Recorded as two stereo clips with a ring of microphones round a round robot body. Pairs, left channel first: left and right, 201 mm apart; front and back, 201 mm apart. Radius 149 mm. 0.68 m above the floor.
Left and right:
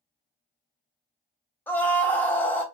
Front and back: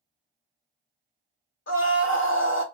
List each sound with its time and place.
1.7 s a scream: 10° left, 1.9 m